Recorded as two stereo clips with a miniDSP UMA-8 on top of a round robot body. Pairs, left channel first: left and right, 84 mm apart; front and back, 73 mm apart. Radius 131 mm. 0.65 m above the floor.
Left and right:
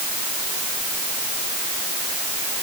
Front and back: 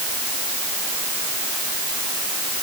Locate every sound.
Only background noise.